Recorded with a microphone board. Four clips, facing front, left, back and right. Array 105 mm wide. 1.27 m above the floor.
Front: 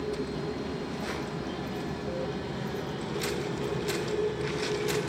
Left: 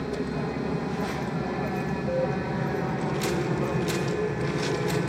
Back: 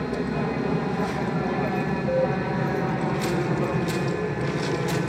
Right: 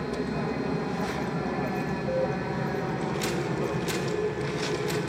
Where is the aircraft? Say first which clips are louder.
Even, back 6 dB; 175° right; by 5.1 s 160° left.